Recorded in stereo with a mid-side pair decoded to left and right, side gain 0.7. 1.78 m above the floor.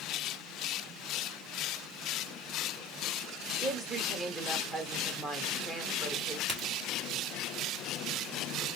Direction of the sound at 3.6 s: 30° right.